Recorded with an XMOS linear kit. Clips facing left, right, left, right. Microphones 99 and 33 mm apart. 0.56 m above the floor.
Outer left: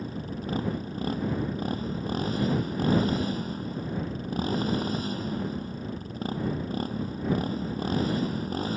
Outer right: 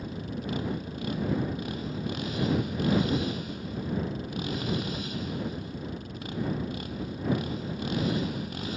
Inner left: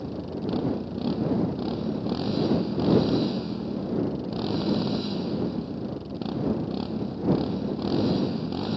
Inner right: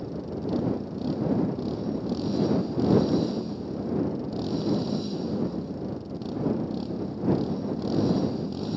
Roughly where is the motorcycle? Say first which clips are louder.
Outer left 1 dB, inner left 1 dB; left.